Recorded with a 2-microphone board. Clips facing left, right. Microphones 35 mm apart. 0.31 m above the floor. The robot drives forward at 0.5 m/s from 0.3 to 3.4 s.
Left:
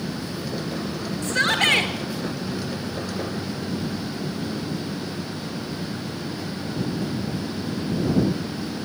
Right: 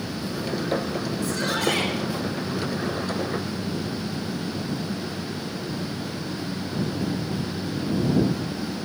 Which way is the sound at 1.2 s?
50° left (ahead or behind).